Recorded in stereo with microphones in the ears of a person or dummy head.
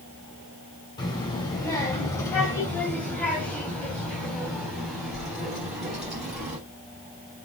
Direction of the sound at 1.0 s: 25° left (ahead or behind).